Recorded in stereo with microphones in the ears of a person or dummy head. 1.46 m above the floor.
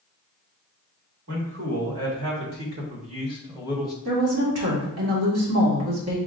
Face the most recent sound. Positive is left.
turn(degrees=-85)